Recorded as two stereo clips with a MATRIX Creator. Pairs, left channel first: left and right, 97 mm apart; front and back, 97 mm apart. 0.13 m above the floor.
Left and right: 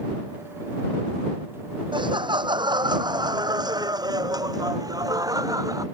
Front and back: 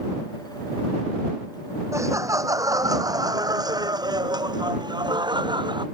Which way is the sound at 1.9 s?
120° right.